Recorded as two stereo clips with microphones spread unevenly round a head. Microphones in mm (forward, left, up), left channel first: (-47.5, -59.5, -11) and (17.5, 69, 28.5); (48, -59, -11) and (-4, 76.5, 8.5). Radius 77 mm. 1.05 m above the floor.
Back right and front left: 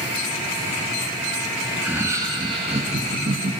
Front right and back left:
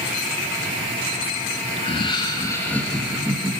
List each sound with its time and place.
1.8 s laughter: 25° right, 1.8 m; by 3.5 s 35° left, 1.8 m